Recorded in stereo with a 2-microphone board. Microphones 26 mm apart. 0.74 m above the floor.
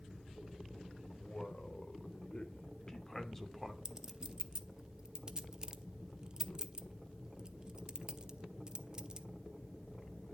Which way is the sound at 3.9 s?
35° right (ahead or behind).